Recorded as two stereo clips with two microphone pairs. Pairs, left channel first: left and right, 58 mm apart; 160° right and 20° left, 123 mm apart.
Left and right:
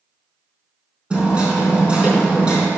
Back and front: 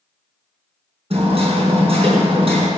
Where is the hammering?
20° right, 4.5 m.